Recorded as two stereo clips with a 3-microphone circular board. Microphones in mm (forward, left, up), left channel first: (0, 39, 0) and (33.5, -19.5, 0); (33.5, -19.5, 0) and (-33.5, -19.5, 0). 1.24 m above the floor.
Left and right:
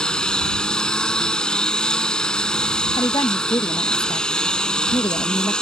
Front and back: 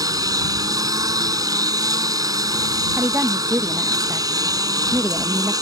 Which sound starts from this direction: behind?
A lawn mower, at 0.0 s.